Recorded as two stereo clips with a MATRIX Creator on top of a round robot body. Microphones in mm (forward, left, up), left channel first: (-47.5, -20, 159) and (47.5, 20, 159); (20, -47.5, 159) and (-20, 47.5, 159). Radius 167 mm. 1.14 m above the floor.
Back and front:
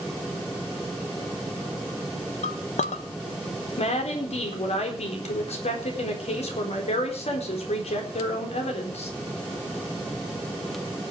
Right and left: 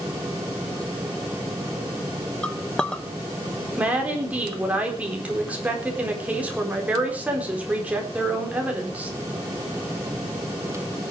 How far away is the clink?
About 0.6 m.